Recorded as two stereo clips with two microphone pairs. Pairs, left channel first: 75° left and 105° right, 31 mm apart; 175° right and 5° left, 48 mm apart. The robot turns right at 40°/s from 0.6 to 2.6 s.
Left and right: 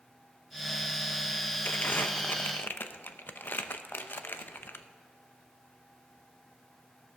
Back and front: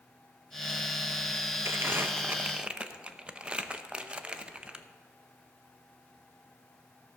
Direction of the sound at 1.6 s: 40° left.